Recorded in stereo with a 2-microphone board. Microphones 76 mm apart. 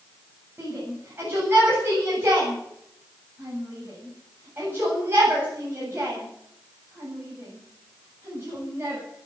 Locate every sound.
0.6 s a shout: 30° right (ahead or behind), 7.5 m